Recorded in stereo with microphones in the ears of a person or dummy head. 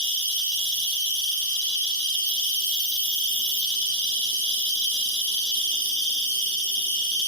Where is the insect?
5° right (ahead or behind), 0.9 m.